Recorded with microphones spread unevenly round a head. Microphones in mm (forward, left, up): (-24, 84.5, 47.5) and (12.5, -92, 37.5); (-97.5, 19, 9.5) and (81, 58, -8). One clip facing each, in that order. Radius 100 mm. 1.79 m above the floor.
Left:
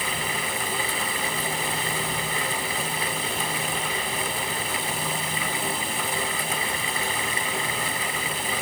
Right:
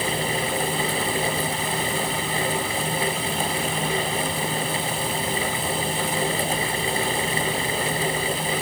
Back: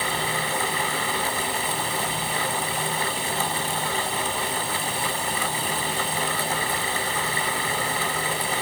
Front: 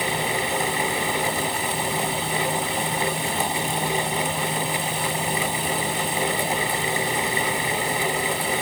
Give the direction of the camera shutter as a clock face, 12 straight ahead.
No camera shutter in this recording.